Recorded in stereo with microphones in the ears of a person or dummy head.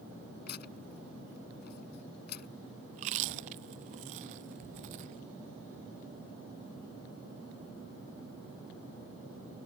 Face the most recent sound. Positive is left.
turn(degrees=-40)  # may be behind; listen again after turning